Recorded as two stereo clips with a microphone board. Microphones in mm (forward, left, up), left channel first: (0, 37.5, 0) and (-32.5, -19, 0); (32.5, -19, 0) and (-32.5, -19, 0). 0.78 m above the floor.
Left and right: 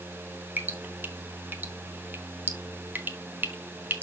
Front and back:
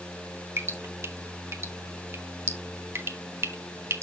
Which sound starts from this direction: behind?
Dripping, at 0.6 s.